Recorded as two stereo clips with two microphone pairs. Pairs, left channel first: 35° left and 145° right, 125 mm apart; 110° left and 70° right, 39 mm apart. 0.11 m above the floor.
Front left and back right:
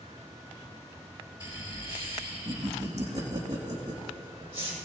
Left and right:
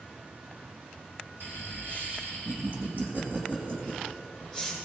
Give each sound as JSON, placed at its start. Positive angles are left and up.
{"t": 1.4, "sound": "laughter", "azimuth_deg": -95, "distance_m": 4.5}